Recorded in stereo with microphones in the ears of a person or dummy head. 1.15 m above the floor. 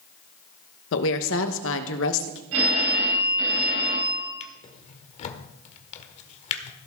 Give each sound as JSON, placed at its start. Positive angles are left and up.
{"t": 0.9, "sound": "a woman speaking", "side_deg": 70, "distance_m": 1.2}
{"t": 2.5, "sound": "a phone ringing", "side_deg": -85, "distance_m": 5.5}
{"t": 4.4, "sound": "a drawer", "side_deg": 40, "distance_m": 1.6}